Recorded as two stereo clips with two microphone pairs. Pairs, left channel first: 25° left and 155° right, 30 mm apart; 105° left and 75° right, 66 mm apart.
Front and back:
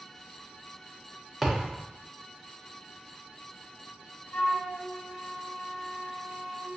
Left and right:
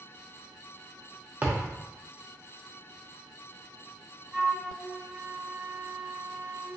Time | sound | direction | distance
1.4 | a thud | 75° right | 0.8 m
4.3 | a flute | 10° left | 1.5 m